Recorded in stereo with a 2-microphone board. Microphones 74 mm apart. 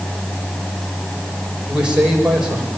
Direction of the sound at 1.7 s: 10° right (ahead or behind).